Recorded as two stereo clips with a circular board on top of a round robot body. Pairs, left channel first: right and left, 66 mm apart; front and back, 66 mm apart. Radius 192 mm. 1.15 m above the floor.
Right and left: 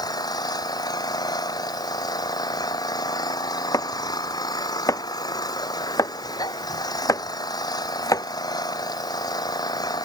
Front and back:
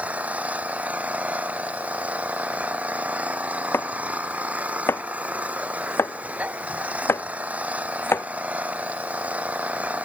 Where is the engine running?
110° right.